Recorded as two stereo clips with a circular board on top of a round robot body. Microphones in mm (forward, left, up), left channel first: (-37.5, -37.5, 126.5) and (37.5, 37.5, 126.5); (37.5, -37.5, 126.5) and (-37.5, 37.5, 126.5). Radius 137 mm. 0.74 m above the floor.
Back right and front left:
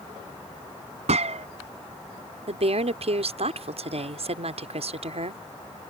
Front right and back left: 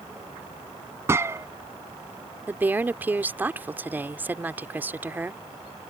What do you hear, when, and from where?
1.1 s a gunshot: 70° left
2.5 s a woman speaking: 60° left